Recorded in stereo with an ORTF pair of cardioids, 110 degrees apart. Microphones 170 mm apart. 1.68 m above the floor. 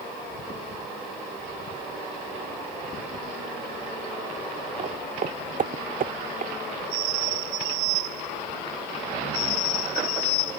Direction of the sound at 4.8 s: 45° right.